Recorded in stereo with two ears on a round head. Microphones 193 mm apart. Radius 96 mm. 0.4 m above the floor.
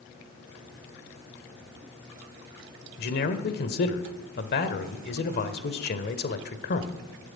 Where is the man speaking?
50° left (ahead or behind), 1.2 m.